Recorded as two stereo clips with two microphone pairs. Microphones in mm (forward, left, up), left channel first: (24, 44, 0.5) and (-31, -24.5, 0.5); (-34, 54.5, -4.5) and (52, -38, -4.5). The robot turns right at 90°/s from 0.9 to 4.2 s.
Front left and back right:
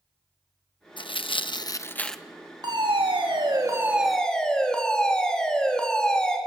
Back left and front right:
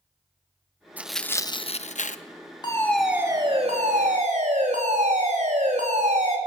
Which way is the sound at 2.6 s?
170° right.